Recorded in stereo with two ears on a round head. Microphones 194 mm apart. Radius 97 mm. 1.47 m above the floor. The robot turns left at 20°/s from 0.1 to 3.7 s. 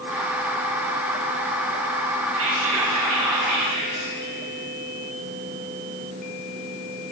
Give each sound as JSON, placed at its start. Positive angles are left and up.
{"t": 2.3, "sound": "whispering", "side_deg": -70, "distance_m": 1.9}